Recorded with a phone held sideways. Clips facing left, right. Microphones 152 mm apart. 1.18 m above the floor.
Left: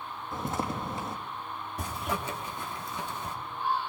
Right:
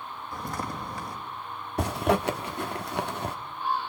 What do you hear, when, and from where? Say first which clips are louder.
0.3 s footsteps: left 2 dB; 25° left (ahead or behind), 3.5 m
1.8 s a zipper: right 10 dB; 70° right (ahead or behind), 1.4 m